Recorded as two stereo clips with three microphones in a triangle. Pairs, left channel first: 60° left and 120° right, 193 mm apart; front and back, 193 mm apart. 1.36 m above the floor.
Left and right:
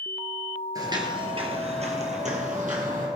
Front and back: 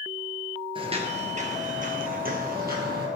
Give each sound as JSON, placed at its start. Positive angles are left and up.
{"t": 0.8, "sound": "footsteps", "azimuth_deg": -165, "distance_m": 1.5}